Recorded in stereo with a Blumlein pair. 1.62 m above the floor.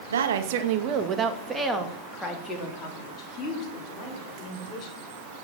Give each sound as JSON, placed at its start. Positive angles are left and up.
{"t": 0.1, "sound": "a woman speaking", "azimuth_deg": -65, "distance_m": 1.9}